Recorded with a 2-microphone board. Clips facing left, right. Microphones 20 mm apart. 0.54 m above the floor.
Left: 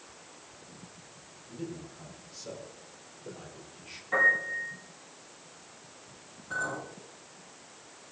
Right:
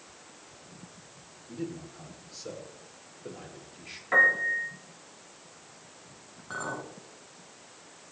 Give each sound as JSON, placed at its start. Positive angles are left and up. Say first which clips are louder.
{"t": 1.5, "sound": "a man speaking", "louder": "right 3 dB", "side_deg": -85, "distance_m": 9.0}
{"t": 4.1, "sound": "a piano", "louder": "right 3 dB", "side_deg": -65, "distance_m": 9.0}
{"t": 6.5, "sound": "a clink", "louder": "left 2 dB", "side_deg": -35, "distance_m": 4.0}